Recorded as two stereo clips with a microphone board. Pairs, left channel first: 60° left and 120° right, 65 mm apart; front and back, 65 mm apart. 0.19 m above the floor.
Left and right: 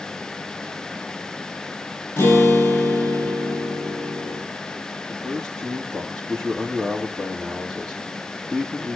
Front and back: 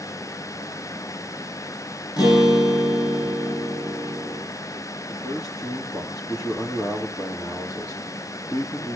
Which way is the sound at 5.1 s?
25° right.